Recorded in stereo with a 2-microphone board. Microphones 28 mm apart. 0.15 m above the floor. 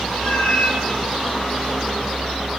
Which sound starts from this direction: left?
A cat meowing, at 0.1 s.